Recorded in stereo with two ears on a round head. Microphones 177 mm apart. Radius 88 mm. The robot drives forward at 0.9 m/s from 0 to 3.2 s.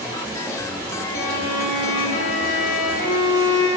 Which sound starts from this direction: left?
A violin, at 1.1 s.